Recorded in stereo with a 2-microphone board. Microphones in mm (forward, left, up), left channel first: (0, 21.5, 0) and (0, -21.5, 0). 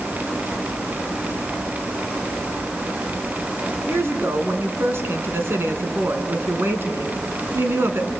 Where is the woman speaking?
65° right (ahead or behind), 3 m.